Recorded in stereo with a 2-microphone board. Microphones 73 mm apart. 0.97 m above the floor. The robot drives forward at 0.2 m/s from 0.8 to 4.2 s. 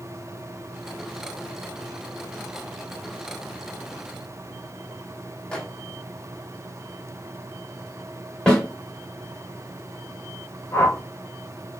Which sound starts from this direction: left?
A whoosh, at 10.7 s.